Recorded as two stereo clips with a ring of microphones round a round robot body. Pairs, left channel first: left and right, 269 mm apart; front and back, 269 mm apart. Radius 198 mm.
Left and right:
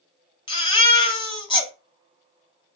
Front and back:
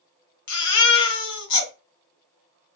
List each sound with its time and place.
0.5 s a baby crying: 15° left, 1.9 m